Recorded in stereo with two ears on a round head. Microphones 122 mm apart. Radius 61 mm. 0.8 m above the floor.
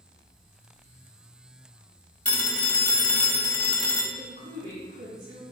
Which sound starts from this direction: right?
A woman speaking, at 4.2 s.